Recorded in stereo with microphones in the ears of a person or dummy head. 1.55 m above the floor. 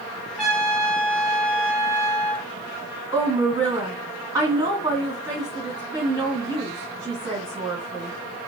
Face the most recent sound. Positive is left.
turn(degrees=-15)  # may be behind; listen again after turning